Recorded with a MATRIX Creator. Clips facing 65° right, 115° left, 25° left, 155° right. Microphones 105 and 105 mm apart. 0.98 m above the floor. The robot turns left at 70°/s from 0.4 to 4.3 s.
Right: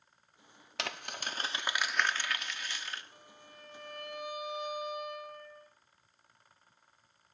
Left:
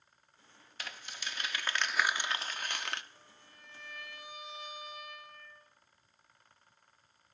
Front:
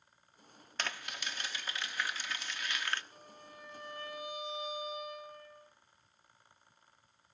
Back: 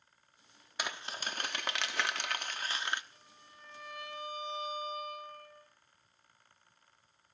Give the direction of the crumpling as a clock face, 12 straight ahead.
3 o'clock.